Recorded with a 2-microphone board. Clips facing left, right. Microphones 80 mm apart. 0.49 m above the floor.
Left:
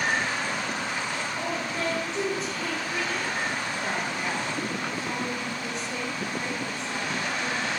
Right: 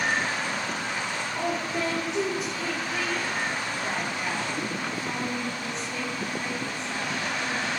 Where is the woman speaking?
25° right (ahead or behind), 1.7 m; by 7.7 s 35° left (ahead or behind), 4 m.